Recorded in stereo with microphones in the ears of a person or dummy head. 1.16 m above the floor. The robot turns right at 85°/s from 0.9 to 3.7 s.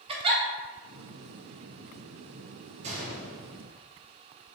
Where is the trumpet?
No trumpet in this recording.